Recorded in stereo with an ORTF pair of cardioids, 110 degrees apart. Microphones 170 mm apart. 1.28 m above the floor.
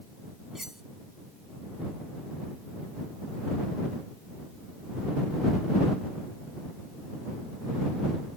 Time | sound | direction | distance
0.6 | cutlery clinking | straight ahead | ?